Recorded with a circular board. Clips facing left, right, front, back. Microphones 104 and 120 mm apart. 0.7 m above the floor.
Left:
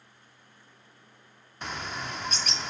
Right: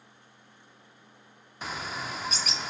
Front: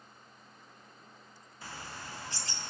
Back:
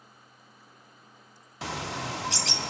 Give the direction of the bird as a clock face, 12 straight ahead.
6 o'clock.